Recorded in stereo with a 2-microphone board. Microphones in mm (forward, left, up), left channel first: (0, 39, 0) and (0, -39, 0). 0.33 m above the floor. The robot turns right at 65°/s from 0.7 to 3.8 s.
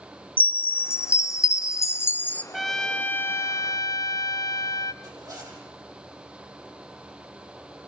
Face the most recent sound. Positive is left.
turn(degrees=-45)  # may be behind; listen again after turning